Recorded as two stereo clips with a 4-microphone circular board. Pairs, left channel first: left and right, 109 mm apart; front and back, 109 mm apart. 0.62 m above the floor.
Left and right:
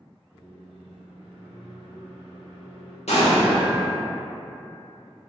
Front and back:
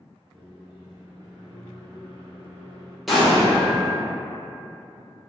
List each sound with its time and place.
0.3 s a microwave: 100° left, 1.5 m
3.1 s an explosion: 90° left, 0.7 m